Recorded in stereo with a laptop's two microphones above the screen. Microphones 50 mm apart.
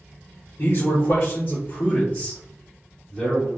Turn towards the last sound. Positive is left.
turn(degrees=10)  # may be behind; listen again after turning